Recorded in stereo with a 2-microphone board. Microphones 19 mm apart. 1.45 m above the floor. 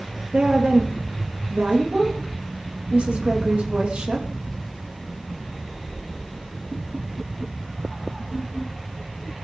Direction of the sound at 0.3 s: 65° right (ahead or behind).